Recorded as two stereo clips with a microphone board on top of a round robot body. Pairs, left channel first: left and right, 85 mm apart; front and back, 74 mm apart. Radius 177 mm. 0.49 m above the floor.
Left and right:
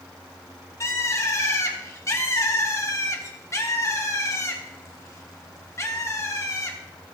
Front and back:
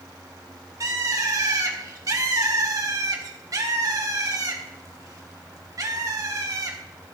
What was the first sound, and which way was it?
A bird, 145° left.